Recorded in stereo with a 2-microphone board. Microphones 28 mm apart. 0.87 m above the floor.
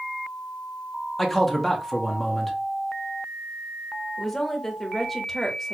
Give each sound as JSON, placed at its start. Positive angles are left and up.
{"t": 1.2, "sound": "a man speaking", "side_deg": 0, "distance_m": 0.8}
{"t": 4.2, "sound": "a woman speaking", "side_deg": 5, "distance_m": 0.8}